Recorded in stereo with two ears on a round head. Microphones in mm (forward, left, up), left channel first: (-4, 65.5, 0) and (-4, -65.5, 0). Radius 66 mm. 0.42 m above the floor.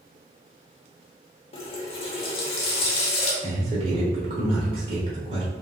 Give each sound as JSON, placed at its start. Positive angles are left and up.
{"t": 1.5, "sound": "a running tap", "side_deg": 40, "distance_m": 0.7}
{"t": 3.4, "sound": "a man speaking", "side_deg": -40, "distance_m": 0.9}